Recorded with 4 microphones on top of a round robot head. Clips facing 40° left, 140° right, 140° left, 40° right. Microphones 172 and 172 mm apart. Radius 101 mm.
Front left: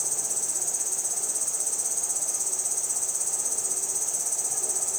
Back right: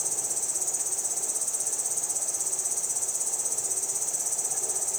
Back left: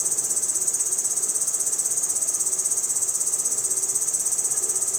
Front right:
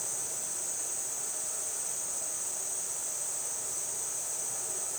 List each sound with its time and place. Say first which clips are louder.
0.0 s an insect: even, back left 5 dB; 130° left, 1.5 m